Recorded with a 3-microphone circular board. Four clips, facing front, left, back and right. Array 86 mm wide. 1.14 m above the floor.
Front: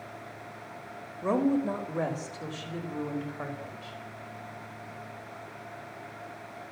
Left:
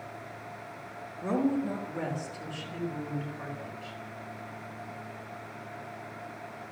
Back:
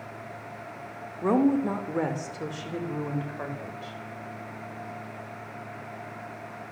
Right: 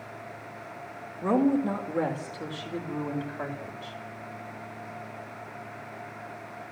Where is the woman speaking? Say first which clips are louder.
Right 5 dB, back 3 dB; 155° right, 3.5 m; by 4.0 s 125° right, 5.5 m.